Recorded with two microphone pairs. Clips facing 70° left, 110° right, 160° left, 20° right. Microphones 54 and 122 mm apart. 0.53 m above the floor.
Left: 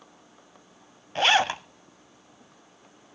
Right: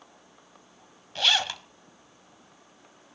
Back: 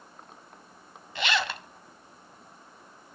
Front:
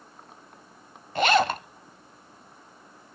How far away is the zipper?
About 0.5 m.